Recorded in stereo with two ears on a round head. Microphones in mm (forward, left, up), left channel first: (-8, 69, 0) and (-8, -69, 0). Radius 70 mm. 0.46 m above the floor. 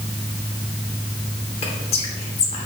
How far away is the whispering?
About 1.0 m.